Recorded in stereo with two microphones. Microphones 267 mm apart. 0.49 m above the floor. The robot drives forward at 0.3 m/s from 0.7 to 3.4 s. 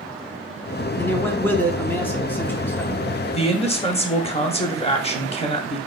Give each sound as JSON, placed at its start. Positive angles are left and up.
{"t": 1.0, "sound": "a man speaking", "side_deg": 5, "distance_m": 0.8}
{"t": 3.3, "sound": "a man speaking", "side_deg": 20, "distance_m": 0.8}